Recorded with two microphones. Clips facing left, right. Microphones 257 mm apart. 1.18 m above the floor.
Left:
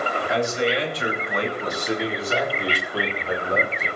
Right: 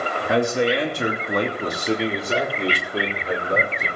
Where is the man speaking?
65° right (ahead or behind), 2.5 m; by 3.9 s 15° right (ahead or behind), 5 m.